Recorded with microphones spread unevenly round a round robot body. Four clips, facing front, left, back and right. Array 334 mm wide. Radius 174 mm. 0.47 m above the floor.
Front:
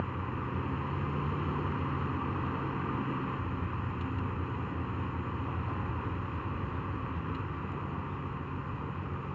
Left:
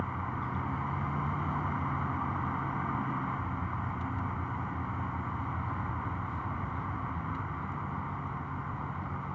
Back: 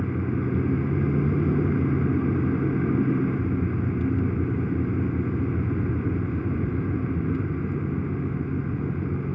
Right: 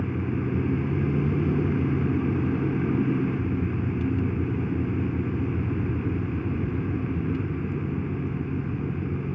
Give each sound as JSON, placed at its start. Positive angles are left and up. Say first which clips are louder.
{"t": 0.0, "sound": "a vehicle", "louder": "right 7 dB, back 9 dB", "azimuth_deg": -145}